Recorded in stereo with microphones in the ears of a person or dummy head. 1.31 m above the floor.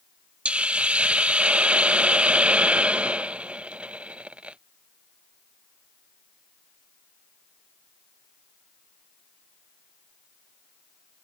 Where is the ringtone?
I don't hear a ringtone.